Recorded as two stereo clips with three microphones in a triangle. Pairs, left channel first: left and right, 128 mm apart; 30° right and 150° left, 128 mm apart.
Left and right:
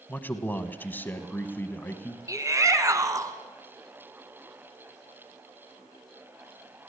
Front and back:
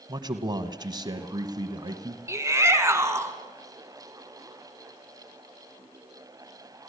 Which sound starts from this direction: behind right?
A shout, at 2.3 s.